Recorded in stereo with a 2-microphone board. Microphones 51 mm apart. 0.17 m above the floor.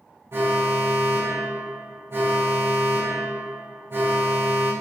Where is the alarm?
55° right (ahead or behind), 8 m.